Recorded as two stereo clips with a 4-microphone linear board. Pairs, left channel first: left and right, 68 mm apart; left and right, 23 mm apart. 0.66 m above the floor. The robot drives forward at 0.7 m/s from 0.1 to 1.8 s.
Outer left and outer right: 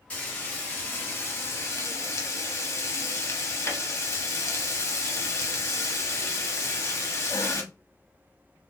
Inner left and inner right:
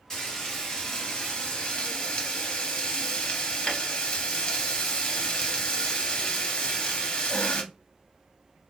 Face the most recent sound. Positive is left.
turn(degrees=40)  # may be behind; listen again after turning